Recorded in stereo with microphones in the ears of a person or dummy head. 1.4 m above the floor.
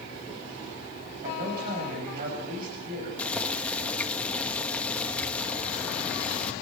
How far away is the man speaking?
About 7.5 m.